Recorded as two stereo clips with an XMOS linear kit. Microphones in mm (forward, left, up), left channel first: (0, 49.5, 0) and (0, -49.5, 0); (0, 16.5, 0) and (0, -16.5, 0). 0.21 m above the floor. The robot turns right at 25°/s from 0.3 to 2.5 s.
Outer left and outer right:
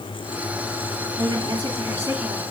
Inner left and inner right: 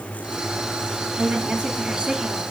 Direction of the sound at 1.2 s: 65° right.